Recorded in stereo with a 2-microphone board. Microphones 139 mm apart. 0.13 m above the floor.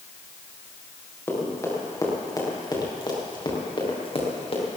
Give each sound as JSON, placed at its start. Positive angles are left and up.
{"t": 1.3, "sound": "running footsteps", "side_deg": 20, "distance_m": 6.5}